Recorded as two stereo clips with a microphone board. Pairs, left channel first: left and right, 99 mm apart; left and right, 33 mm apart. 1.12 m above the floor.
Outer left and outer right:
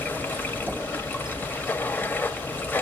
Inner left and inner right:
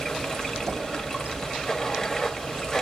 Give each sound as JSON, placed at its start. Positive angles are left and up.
{"t": 0.0, "sound": "running water", "side_deg": 20, "distance_m": 1.1}